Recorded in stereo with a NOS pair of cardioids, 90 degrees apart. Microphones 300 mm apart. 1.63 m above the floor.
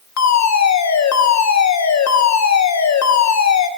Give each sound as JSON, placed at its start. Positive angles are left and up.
{"t": 0.2, "sound": "a fire alarm", "azimuth_deg": 60, "distance_m": 3.5}